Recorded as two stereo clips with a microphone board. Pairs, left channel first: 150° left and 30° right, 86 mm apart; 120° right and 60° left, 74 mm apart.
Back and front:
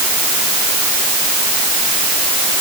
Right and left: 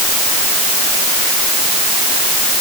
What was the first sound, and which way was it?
Only background noise.